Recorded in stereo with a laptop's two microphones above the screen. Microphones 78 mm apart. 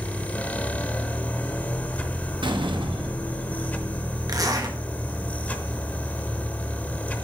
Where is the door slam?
85° right, 0.9 m.